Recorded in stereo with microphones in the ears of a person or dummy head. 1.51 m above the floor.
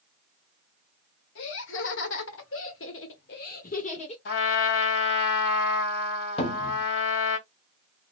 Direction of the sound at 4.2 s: 70° left (ahead or behind).